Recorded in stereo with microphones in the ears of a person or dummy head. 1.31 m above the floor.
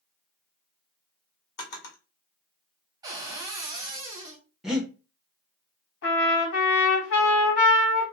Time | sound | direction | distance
1.6 | a drawer | 60° left (ahead or behind) | 1.4 m
3.0 | a cupboard door | 30° right (ahead or behind) | 0.6 m
4.6 | breathing | centre (ahead or behind) | 0.7 m
6.0 | a trumpet | 75° left (ahead or behind) | 1.4 m